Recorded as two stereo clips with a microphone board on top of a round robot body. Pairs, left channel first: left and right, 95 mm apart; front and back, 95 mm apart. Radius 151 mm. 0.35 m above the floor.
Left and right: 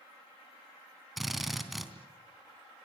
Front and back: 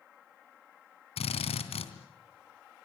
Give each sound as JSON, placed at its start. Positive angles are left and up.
{"t": 1.2, "sound": "a drill", "azimuth_deg": 0, "distance_m": 3.0}